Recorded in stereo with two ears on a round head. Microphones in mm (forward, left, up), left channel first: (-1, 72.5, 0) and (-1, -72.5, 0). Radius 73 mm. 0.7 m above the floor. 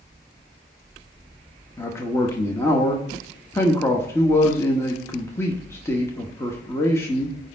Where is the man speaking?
15° left (ahead or behind), 0.9 m.